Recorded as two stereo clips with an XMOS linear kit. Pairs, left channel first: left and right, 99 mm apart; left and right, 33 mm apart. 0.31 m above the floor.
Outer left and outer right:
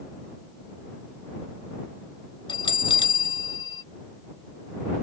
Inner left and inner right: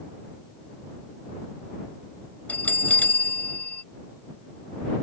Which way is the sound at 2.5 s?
55° left (ahead or behind).